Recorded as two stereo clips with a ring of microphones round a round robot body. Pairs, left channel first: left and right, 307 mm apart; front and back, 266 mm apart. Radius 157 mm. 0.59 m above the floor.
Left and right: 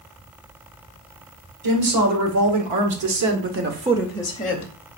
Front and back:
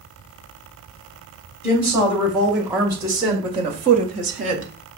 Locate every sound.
1.6 s a woman speaking: 90° right, 2.5 m; by 4.7 s 125° left, 1.0 m